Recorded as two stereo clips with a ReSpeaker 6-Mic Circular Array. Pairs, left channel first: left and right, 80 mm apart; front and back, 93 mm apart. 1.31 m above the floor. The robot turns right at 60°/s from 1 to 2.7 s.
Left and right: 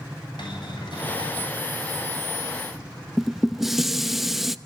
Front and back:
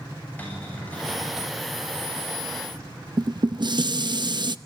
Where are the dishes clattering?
175° right, 0.7 m.